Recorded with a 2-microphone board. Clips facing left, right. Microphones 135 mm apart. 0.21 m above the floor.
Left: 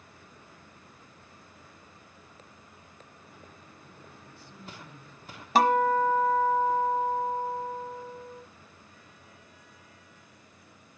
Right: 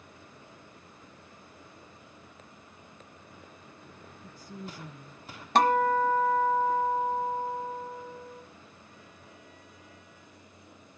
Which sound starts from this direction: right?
A woman speaking, at 4.2 s.